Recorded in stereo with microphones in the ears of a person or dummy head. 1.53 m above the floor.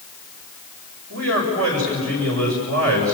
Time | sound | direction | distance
1.1 | a man speaking | 70° right (ahead or behind) | 8 m